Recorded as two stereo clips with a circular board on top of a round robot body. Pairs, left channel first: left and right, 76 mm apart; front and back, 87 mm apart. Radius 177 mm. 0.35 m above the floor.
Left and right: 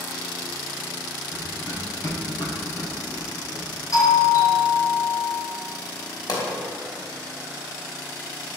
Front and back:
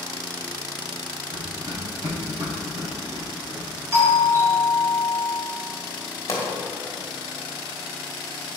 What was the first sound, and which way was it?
Running footsteps, 145° left.